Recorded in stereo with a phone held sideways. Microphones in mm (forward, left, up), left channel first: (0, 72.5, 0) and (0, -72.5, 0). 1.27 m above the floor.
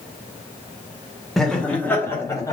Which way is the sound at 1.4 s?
Centre (ahead or behind).